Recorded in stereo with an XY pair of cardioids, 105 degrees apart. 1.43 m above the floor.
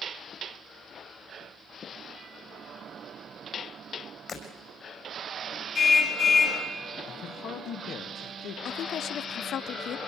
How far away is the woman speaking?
About 0.5 m.